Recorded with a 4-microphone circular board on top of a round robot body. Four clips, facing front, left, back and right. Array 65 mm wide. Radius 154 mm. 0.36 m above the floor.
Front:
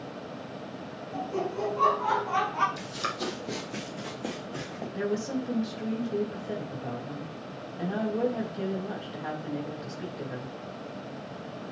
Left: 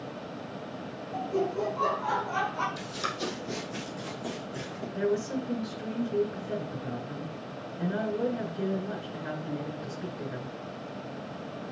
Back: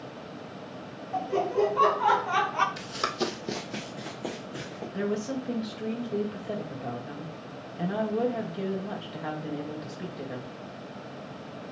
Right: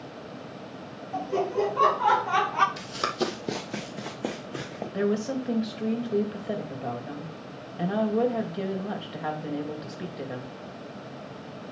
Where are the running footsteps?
145° right, 1.2 m; by 4.8 s 80° right, 3 m.